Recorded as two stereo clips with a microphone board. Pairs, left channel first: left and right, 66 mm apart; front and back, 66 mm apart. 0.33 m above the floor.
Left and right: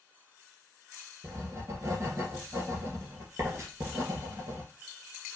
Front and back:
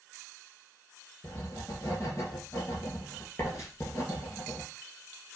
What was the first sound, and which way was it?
Writing, 45° right.